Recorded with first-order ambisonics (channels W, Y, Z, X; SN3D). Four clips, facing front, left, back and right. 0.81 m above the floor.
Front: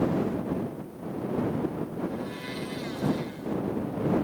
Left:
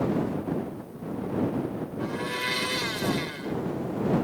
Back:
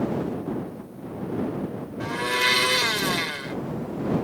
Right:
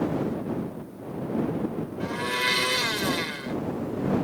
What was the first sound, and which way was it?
A blender, 165° right.